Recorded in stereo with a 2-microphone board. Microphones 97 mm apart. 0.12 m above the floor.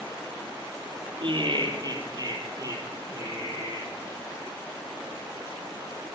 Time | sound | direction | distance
1.2 | laughter | 55° right (ahead or behind) | 3 m